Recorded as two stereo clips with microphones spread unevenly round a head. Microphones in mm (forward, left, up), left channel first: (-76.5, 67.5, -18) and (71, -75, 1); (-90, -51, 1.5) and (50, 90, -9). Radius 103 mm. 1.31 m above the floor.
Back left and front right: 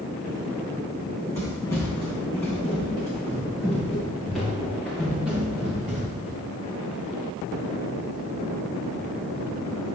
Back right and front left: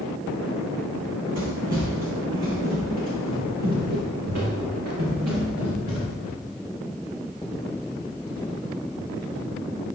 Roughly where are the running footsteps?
Ahead left.